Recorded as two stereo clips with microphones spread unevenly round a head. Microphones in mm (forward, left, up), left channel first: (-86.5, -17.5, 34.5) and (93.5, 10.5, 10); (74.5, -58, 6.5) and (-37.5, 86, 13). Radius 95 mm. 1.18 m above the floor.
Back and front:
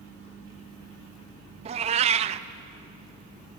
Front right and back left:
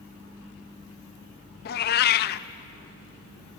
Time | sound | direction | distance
1.6 | a cat meowing | 45° right | 0.5 m